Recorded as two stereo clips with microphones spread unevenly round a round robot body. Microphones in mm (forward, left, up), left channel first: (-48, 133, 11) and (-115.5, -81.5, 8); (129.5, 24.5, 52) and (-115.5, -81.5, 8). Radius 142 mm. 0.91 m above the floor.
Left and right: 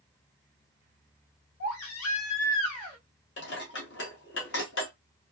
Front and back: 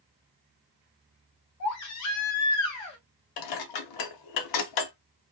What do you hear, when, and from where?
1.6 s a baby crying: 45° left, 0.7 m
3.4 s dishes clattering: 20° left, 0.6 m